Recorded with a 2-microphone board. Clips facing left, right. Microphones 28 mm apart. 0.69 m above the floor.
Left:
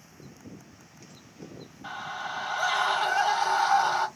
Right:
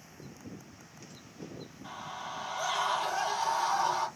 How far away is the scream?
About 1.5 m.